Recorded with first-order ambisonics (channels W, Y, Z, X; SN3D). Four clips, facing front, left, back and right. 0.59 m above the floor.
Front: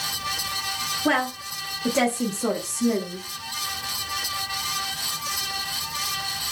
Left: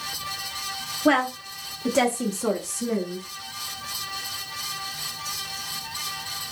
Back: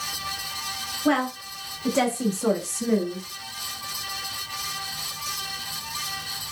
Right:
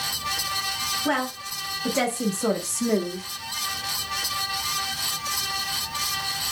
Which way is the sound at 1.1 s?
70° left.